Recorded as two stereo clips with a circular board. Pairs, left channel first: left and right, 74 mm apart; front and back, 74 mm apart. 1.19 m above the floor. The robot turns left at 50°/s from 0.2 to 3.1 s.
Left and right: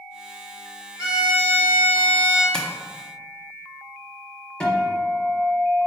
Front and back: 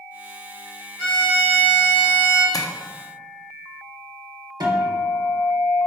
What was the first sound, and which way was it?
A violin, 75° left.